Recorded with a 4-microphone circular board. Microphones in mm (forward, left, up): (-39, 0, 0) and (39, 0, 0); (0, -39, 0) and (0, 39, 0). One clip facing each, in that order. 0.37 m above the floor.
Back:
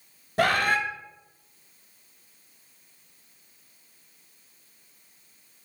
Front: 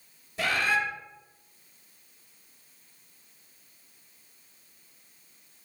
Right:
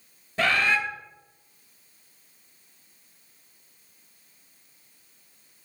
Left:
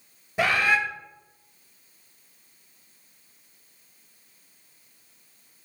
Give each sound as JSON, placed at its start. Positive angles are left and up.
{"t": 0.4, "sound": "a bird", "azimuth_deg": 165, "distance_m": 0.5}